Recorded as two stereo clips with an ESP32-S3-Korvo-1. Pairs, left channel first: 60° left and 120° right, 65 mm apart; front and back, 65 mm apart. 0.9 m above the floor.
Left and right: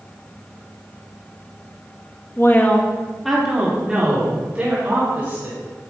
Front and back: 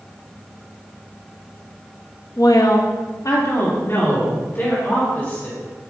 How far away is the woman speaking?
About 1.0 m.